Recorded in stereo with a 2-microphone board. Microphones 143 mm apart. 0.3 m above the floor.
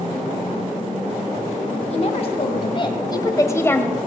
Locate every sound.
1.9 s a woman speaking: 45° left (ahead or behind), 1.7 m; by 4.0 s 10° left (ahead or behind), 1.2 m